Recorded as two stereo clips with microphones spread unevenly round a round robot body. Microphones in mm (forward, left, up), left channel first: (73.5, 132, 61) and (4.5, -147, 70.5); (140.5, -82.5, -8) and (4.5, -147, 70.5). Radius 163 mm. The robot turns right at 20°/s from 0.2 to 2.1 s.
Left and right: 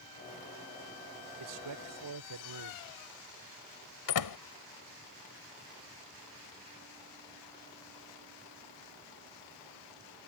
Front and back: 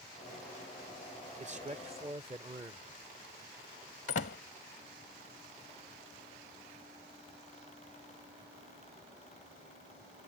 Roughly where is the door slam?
Ahead left.